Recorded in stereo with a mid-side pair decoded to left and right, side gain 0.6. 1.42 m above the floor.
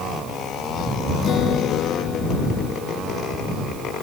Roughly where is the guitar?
Ahead left.